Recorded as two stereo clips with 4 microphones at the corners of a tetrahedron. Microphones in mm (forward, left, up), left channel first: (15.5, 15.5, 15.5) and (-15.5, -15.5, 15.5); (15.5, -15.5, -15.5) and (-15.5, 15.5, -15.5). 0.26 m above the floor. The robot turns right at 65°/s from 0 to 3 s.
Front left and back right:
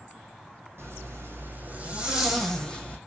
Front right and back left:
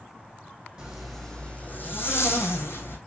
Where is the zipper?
160° right, 3 m; by 3.0 s 15° right, 3 m.